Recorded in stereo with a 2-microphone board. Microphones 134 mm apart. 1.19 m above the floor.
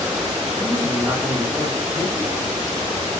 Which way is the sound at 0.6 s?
30° right (ahead or behind).